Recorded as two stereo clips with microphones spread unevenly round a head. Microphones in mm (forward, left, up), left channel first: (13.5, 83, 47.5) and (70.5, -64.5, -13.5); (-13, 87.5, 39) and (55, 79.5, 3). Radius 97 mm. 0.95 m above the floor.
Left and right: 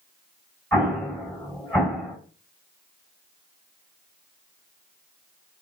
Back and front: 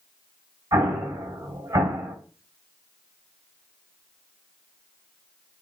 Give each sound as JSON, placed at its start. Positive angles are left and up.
{"t": 0.7, "sound": "an explosion", "azimuth_deg": 25, "distance_m": 4.0}